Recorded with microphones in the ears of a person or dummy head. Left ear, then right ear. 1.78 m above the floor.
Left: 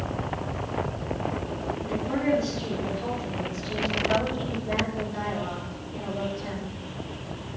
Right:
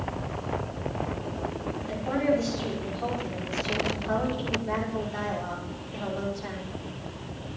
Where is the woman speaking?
30° right (ahead or behind), 6 m; by 6.8 s 55° right (ahead or behind), 6 m.